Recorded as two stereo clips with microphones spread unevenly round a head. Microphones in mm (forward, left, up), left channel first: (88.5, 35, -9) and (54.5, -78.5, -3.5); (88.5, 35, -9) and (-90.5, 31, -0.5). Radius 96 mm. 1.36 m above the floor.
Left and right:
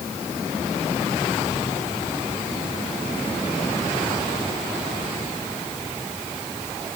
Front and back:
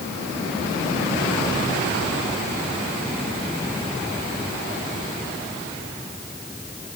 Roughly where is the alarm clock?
No alarm clock in this recording.